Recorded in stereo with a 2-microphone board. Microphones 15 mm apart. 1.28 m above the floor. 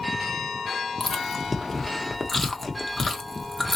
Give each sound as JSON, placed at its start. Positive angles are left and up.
{"t": 1.0, "sound": "chewing", "side_deg": 10, "distance_m": 0.9}